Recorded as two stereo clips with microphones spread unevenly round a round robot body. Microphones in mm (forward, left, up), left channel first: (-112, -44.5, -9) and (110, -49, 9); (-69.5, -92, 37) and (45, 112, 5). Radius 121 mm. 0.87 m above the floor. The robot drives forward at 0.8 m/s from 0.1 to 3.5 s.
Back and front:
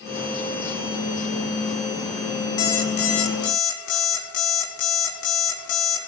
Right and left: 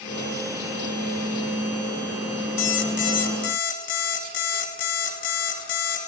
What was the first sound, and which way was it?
An alarm clock, 155° right.